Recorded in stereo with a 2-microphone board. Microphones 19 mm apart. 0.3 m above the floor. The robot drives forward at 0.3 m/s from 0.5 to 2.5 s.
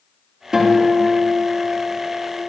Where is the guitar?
30° right (ahead or behind), 3 m; by 2.4 s 25° right (ahead or behind), 3.5 m.